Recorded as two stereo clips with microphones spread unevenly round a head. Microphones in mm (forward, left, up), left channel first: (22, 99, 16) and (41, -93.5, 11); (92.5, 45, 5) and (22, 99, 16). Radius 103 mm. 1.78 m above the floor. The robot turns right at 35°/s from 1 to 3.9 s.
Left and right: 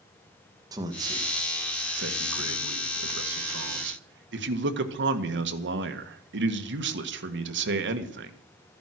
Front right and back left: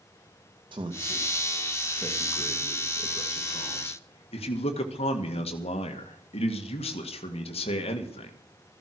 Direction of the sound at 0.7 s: 160° right.